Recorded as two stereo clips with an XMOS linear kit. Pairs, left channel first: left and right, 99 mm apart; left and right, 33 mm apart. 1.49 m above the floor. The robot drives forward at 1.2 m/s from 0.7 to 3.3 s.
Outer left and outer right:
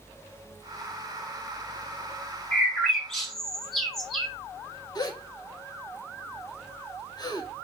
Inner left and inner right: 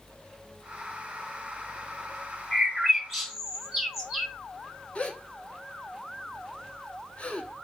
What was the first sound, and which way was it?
A bird, centre (ahead or behind).